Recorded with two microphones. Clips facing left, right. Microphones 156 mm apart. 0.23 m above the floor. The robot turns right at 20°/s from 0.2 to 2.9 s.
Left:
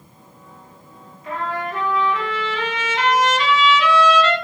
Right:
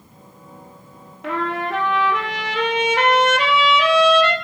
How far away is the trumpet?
About 1.5 m.